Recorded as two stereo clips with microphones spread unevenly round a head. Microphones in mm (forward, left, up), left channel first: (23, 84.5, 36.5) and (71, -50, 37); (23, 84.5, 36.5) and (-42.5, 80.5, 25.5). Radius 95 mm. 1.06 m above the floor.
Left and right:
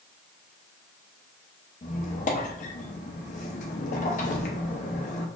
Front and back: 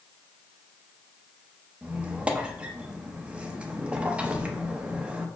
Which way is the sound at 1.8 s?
105° left.